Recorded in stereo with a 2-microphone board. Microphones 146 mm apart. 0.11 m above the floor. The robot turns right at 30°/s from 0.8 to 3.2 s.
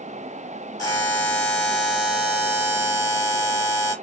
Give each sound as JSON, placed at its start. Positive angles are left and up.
{"t": 0.8, "sound": "a buzzer", "azimuth_deg": 145, "distance_m": 2.5}